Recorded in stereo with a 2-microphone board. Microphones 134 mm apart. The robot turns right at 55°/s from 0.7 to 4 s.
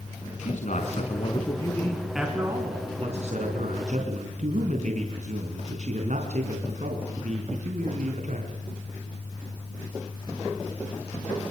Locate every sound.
0.4 s a man speaking: 105° left, 4 m; by 8.6 s 75° right, 4 m